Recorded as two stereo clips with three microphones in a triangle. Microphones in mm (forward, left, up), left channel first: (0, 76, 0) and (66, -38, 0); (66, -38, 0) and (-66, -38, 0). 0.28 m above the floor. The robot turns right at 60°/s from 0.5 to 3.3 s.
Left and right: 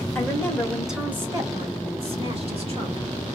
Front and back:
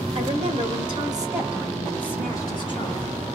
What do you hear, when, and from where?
0.1 s a woman speaking: 170° right, 1.8 m; by 3.1 s 15° right, 1.8 m